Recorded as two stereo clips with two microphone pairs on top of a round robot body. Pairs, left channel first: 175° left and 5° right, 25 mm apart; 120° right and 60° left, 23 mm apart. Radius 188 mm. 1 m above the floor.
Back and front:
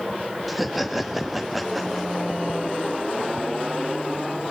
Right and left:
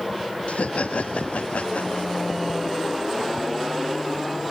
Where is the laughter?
85° right, 2 m.